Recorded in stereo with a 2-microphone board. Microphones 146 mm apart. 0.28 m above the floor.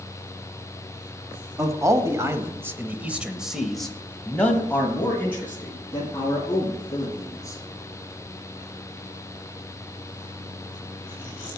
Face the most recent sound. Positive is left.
turn(degrees=20)  # may be behind; listen again after turning